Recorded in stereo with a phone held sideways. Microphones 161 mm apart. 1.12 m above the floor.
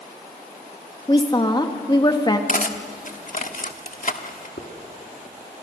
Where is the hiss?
65° left (ahead or behind), 2.5 m.